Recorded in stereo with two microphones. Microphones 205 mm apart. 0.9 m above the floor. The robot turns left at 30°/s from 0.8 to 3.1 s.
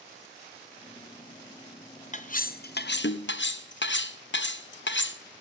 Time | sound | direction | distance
2.1 | cutlery clinking | 40° left (ahead or behind) | 0.6 m